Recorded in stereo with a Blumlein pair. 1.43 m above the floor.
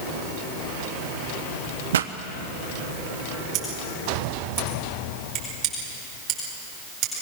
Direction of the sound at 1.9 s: 65° right.